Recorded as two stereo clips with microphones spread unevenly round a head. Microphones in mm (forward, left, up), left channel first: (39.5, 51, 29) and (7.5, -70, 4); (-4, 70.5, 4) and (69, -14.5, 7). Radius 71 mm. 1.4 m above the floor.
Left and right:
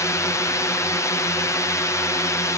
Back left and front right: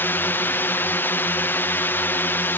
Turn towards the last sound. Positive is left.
turn(degrees=135)